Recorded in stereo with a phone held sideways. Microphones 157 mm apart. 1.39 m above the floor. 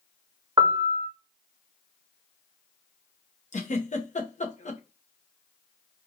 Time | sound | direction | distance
0.6 | a piano | 25° right (ahead or behind) | 0.9 m
3.5 | a giggle | 50° left (ahead or behind) | 1.0 m